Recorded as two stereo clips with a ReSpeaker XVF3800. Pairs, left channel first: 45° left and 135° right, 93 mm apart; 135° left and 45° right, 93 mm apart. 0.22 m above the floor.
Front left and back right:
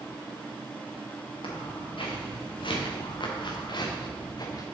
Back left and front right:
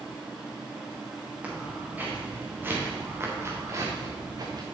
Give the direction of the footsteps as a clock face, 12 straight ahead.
11 o'clock.